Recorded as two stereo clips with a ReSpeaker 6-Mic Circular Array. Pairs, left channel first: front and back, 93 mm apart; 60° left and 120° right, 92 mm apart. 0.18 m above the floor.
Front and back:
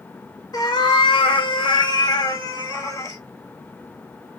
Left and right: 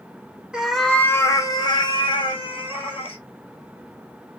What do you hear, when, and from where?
0.5 s a cat meowing: 40° right, 0.6 m; by 3.2 s 55° left, 1.4 m